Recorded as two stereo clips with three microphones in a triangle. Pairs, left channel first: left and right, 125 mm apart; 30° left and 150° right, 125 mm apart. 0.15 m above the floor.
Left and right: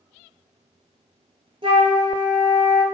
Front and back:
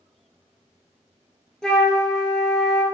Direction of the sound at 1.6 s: 55° right.